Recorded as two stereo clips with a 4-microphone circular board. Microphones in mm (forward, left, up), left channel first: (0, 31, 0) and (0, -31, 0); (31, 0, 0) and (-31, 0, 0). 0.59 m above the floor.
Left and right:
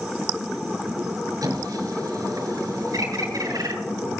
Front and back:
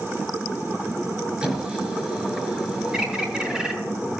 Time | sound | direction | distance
1.4 | a squeak | 105° right | 5 m
2.9 | a bird | 105° right | 5 m